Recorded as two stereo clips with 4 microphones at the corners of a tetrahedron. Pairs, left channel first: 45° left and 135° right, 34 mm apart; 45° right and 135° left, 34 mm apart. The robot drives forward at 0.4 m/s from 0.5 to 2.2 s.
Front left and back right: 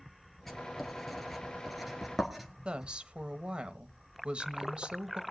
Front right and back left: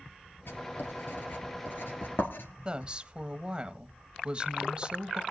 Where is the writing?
40° right, 3 m; by 2.9 s 50° right, 2.5 m.